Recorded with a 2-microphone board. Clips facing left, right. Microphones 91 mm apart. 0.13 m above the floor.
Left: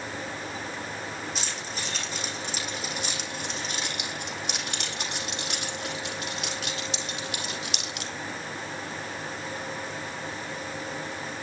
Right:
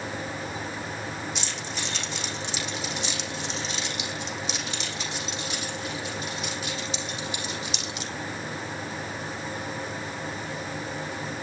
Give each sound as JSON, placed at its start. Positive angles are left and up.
{"t": 1.4, "sound": "keys jangling", "side_deg": 40, "distance_m": 5.5}